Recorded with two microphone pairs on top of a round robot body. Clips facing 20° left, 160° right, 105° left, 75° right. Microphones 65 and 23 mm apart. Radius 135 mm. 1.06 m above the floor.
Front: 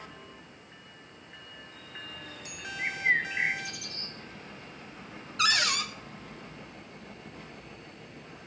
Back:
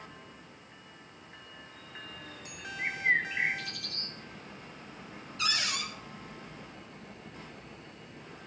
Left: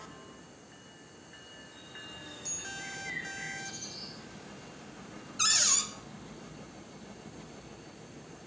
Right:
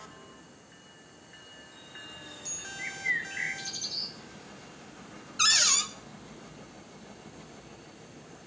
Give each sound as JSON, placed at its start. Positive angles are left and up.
{"t": 2.8, "sound": "a bird", "azimuth_deg": -65, "distance_m": 1.5}
{"t": 5.4, "sound": "a cupboard door", "azimuth_deg": -15, "distance_m": 1.5}